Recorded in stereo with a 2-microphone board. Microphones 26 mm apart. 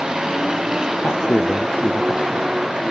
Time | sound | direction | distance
0.0 | a vehicle | 30° right (ahead or behind) | ?
1.0 | a man speaking | 70° left (ahead or behind) | ?